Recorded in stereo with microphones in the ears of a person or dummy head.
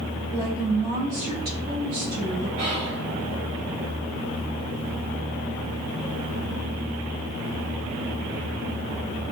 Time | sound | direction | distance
0.3 | a woman speaking | 20° right (ahead or behind) | 1.6 m
2.6 | whispering | 65° right (ahead or behind) | 1.3 m